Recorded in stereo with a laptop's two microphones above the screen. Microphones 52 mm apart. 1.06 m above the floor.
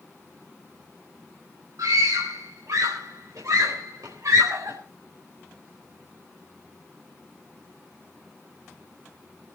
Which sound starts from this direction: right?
A scream, at 1.8 s.